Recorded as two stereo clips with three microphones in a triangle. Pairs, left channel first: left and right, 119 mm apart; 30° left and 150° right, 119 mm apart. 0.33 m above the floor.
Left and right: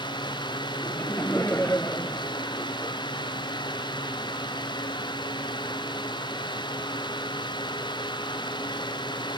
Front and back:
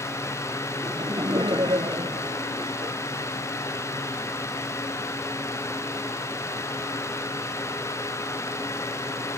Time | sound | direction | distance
0.8 | laughter | 160° left | ?